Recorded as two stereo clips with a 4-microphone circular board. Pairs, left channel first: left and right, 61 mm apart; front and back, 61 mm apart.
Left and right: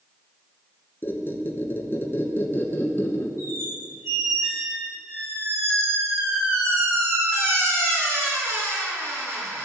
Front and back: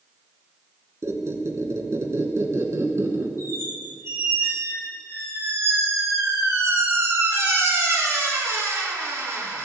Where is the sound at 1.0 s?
140° left, 1.0 m.